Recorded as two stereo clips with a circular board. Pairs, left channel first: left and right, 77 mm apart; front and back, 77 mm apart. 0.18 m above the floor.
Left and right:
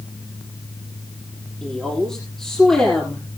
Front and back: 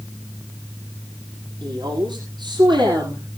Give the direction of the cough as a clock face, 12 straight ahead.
I don't hear a cough.